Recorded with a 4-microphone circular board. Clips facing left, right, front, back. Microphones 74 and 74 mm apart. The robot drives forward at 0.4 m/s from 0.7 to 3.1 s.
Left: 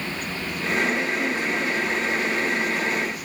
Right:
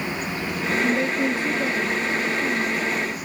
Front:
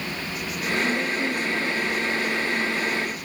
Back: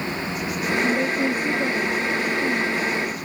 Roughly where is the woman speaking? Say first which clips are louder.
Right 4 dB, back 5 dB; behind right.